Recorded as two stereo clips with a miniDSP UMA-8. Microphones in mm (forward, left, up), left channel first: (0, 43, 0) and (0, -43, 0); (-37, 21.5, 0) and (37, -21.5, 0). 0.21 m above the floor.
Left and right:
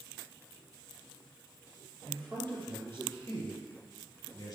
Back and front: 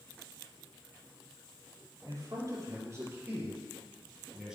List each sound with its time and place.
2.0 s a man speaking: 20° left, 4.5 m; by 4.6 s 50° left, 4.5 m